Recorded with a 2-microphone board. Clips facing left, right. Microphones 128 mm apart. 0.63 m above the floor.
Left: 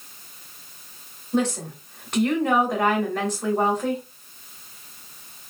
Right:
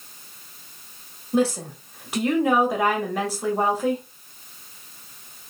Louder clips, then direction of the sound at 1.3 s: Right 2 dB; 10° right (ahead or behind).